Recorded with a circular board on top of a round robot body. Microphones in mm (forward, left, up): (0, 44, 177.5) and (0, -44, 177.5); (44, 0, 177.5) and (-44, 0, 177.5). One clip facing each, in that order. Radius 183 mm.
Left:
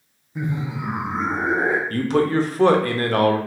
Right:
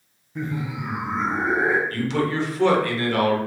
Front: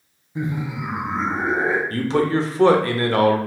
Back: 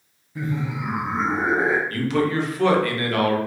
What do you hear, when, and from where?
0.3 s laughter: 20° left, 0.7 m; by 1.8 s 110° left, 1.3 m
1.9 s a man speaking: 55° left, 0.8 m